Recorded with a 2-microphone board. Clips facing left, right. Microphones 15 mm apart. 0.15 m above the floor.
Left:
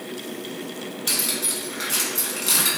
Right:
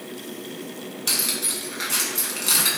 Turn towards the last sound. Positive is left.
turn(degrees=-10)  # may be behind; listen again after turning